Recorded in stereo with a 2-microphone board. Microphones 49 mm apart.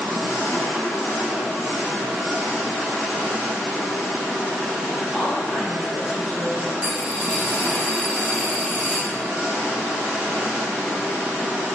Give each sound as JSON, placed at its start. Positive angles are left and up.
{"t": 0.0, "sound": "an engine running", "side_deg": -30, "distance_m": 1.8}
{"t": 5.1, "sound": "a woman speaking", "side_deg": -10, "distance_m": 1.3}
{"t": 6.8, "sound": "a dropped coin", "side_deg": -25, "distance_m": 1.0}